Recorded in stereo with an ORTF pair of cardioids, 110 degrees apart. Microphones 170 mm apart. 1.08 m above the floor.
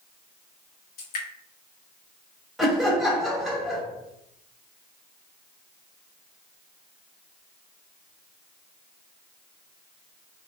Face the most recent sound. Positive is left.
turn(degrees=0)